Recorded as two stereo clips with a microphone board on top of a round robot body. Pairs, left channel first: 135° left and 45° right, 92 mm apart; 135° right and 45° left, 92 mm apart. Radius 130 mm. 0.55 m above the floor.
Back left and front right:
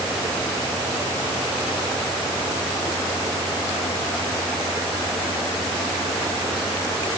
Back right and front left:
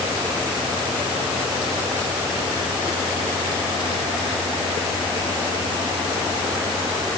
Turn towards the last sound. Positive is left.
No sound to turn to.